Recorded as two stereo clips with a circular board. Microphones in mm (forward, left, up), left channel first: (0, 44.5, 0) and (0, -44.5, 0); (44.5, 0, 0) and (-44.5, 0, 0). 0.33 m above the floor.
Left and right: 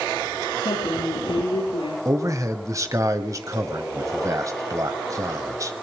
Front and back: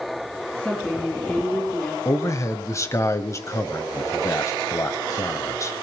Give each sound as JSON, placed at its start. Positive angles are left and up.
{"t": 0.5, "sound": "a woman speaking", "azimuth_deg": 75, "distance_m": 6.5}
{"t": 2.0, "sound": "a man speaking", "azimuth_deg": -45, "distance_m": 1.9}